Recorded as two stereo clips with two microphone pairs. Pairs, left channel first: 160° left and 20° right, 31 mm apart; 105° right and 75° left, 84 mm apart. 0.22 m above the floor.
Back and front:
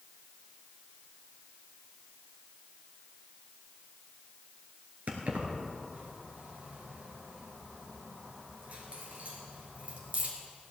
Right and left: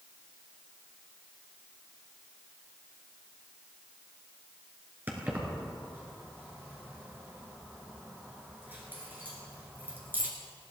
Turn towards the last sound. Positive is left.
turn(degrees=10)